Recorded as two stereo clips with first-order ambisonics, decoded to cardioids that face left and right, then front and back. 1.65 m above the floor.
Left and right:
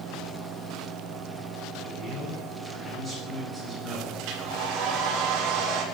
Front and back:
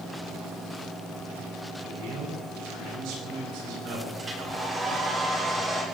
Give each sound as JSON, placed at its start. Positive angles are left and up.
{"t": 1.8, "sound": "a man speaking", "azimuth_deg": -170, "distance_m": 9.5}
{"t": 4.2, "sound": "a hair dryer", "azimuth_deg": -110, "distance_m": 4.0}